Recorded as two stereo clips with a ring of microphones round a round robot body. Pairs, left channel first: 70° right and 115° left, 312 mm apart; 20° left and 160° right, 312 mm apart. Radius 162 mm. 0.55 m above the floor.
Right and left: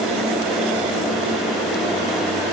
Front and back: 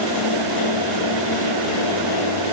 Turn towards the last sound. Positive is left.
No sound to turn to.